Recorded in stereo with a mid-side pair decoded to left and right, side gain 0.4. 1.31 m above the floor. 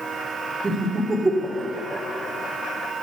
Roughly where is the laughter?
Ahead right.